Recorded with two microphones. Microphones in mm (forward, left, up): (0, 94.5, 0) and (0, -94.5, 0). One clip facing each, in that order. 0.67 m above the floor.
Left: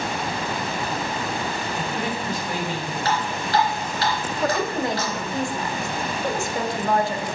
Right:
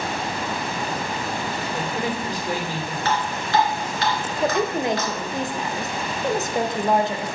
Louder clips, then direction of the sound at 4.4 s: Right 2 dB; 20° right (ahead or behind).